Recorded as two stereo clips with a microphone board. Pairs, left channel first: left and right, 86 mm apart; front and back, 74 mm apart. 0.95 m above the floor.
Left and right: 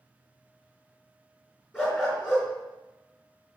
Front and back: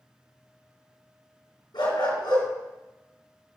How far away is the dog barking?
About 3.5 m.